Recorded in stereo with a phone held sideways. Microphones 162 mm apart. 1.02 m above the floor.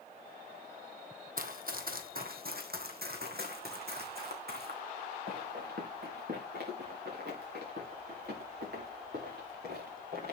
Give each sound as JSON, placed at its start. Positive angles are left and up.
{"t": 1.4, "sound": "running footsteps", "side_deg": -60, "distance_m": 1.8}